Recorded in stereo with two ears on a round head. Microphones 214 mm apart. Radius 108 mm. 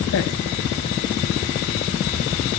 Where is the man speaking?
55° left (ahead or behind), 1.1 m.